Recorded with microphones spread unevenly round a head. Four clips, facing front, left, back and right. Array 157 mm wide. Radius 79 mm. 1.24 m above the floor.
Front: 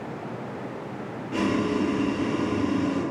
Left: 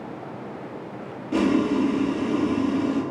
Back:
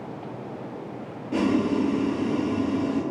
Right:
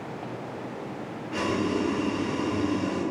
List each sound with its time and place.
1.3 s boiling: 120° left, 1.9 m